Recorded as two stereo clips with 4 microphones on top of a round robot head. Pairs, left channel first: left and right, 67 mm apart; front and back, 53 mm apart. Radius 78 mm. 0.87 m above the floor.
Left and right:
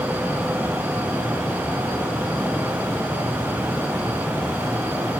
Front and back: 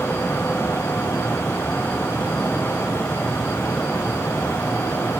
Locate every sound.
Only background noise.